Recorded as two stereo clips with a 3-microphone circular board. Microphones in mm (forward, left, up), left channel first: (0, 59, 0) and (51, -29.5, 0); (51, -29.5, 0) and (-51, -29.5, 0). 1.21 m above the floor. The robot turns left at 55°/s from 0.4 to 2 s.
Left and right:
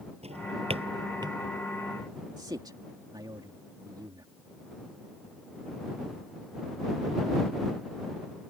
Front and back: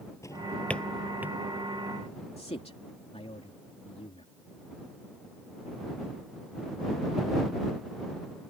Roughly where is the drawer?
Ahead right.